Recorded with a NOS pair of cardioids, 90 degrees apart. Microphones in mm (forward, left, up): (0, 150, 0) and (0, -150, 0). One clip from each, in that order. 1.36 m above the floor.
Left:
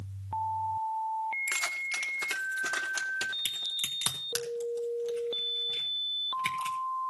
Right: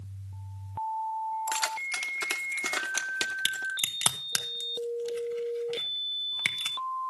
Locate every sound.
1.5 s keys jangling: 15° right, 2 m; by 3.7 s 55° right, 2 m
3.5 s a crack: 45° right, 2.5 m